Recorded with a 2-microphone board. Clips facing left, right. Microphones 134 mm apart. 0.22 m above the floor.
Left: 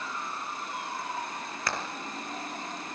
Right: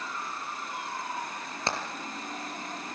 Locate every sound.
1.7 s hammering: 25° right (ahead or behind), 4 m